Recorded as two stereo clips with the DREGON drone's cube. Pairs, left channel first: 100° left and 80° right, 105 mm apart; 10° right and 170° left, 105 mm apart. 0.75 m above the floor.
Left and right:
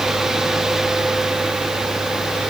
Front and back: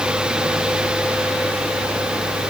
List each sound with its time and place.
Only background noise.